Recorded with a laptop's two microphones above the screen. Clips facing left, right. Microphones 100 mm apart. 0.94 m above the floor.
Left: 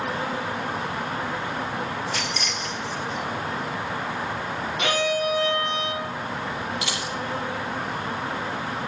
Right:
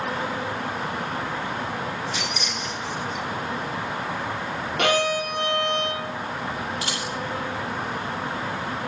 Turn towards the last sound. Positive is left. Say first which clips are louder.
# even
turn(degrees=-40)  # may be behind; listen again after turning